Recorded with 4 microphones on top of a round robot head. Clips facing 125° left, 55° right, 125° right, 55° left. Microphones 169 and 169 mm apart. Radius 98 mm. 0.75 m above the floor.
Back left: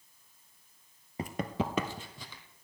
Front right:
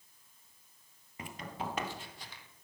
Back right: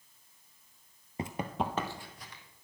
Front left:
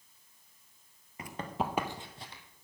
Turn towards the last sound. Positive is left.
turn(degrees=110)